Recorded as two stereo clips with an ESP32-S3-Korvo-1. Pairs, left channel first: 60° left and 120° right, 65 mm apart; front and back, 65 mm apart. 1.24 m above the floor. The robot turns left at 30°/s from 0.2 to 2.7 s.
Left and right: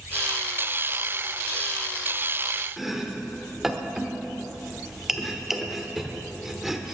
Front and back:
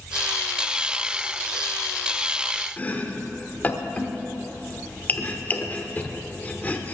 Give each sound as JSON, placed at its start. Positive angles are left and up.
{"t": 2.8, "sound": "chopping", "azimuth_deg": -35, "distance_m": 1.0}